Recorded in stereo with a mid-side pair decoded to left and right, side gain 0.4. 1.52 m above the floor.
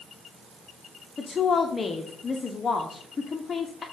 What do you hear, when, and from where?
1.2 s a woman speaking: 35° left, 1.0 m